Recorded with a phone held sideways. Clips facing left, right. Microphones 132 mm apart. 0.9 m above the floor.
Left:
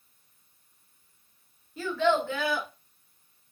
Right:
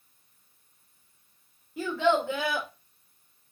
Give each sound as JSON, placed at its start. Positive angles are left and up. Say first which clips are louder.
{"t": 1.8, "sound": "a child speaking", "louder": "even", "side_deg": -15, "distance_m": 1.1}